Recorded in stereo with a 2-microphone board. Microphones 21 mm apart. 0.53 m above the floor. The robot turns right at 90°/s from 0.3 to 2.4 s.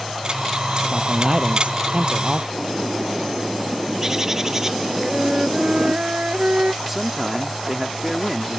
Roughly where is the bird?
Right.